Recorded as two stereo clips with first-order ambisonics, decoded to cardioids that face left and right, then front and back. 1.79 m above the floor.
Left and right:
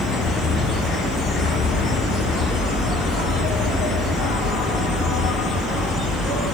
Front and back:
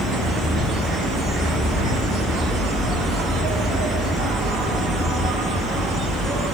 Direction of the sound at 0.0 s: 130° left.